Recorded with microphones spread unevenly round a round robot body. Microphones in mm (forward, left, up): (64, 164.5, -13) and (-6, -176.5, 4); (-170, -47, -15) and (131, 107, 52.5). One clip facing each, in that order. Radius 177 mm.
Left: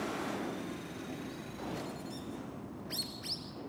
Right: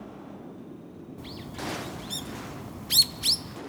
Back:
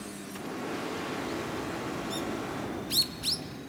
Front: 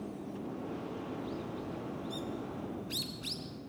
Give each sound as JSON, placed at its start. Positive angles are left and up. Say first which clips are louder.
{"t": 1.2, "sound": "a bird", "louder": "right 4 dB, back 5 dB", "azimuth_deg": -75, "distance_m": 0.7}